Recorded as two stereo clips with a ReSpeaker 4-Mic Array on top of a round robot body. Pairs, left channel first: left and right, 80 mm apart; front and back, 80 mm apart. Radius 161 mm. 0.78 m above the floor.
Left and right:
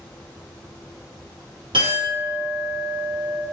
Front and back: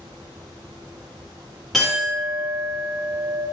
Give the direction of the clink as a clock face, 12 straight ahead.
3 o'clock.